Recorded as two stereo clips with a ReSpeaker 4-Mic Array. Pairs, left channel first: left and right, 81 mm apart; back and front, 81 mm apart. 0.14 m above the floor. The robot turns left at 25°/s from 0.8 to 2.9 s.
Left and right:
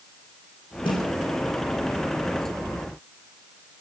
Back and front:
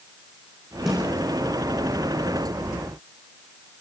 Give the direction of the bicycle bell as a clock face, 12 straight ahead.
I don't hear a bicycle bell.